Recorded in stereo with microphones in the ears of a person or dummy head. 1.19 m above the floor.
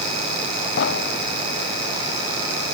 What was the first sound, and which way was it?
An explosion, 90° left.